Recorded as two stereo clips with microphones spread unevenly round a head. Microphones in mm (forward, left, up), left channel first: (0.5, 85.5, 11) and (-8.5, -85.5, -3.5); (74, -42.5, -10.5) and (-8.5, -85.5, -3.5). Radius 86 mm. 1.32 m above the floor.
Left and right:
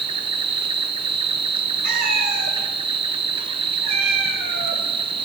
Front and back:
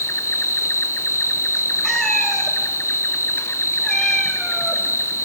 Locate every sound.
0.0 s an insect: 35° right, 0.7 m
1.8 s a cat meowing: 60° right, 1.7 m